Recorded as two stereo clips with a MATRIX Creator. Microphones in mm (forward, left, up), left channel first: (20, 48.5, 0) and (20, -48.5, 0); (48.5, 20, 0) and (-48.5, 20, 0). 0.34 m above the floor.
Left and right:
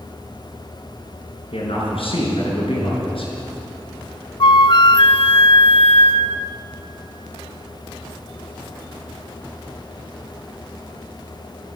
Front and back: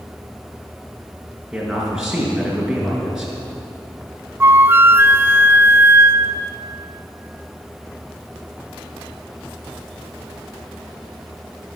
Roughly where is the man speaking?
Left.